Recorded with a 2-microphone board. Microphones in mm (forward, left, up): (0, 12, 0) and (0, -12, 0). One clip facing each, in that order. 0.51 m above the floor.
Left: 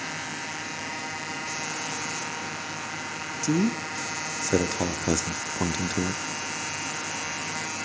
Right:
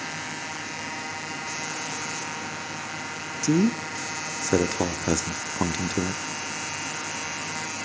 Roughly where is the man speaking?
Right.